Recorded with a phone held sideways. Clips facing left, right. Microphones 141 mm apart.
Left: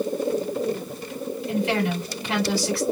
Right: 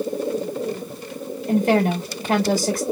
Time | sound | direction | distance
1.5 | a woman speaking | 45° right (ahead or behind) | 2.5 m